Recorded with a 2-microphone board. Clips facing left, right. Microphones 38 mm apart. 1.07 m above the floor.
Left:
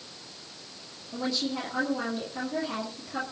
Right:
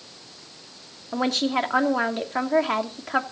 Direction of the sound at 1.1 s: 70° right (ahead or behind).